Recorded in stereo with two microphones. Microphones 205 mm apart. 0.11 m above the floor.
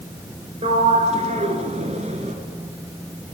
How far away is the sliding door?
About 1.1 m.